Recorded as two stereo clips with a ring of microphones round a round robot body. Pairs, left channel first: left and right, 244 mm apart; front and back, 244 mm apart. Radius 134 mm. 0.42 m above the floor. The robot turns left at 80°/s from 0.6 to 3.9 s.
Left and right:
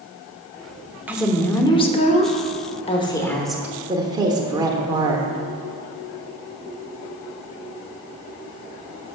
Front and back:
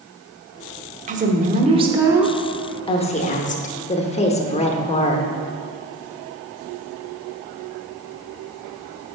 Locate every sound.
1.1 s a woman speaking: 165° right, 0.8 m; by 5.3 s 30° right, 0.8 m